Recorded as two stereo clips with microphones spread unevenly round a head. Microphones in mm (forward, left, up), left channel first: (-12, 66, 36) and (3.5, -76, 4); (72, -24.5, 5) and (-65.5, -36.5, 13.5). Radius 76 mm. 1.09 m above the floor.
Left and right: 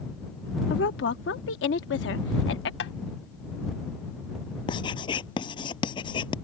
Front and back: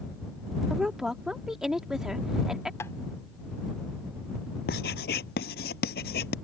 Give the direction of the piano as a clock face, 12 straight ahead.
I don't hear a piano.